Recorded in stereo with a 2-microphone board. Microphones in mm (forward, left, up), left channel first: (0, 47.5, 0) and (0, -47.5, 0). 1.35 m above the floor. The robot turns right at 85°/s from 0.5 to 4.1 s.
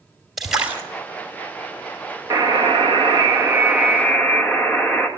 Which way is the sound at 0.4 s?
5° right (ahead or behind).